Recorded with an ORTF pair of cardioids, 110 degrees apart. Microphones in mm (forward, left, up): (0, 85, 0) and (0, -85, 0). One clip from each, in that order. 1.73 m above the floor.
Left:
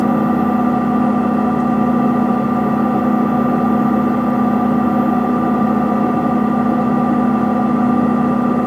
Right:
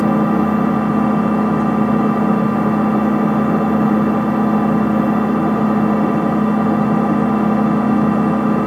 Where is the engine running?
15° left, 2.5 m.